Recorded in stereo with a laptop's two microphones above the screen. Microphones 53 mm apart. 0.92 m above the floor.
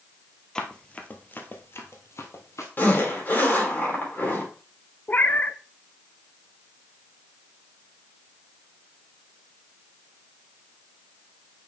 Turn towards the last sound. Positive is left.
turn(degrees=30)  # may be behind; listen again after turning